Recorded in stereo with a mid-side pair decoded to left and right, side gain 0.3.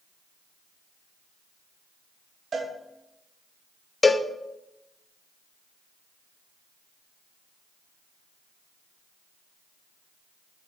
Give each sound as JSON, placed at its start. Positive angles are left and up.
{"t": 2.5, "sound": "a cowbell", "azimuth_deg": -65, "distance_m": 1.0}
{"t": 4.0, "sound": "a cowbell", "azimuth_deg": 30, "distance_m": 0.5}